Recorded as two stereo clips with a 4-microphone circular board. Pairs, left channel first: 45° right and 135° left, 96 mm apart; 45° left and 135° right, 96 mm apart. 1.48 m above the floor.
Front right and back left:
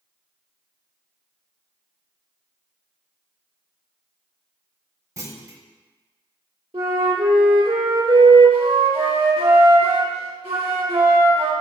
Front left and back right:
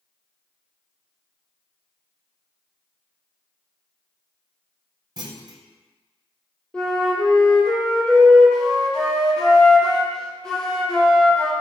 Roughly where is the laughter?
I don't hear laughter.